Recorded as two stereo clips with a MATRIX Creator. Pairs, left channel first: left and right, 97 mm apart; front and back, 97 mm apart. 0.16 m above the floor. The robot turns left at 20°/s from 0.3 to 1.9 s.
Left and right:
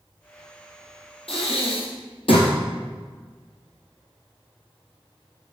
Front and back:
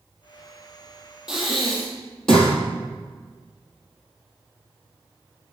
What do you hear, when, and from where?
1.3 s breathing: 95° left, 1.7 m; by 2.5 s 80° left, 1.7 m